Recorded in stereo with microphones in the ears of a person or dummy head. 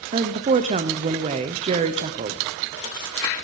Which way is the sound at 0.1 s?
35° right (ahead or behind).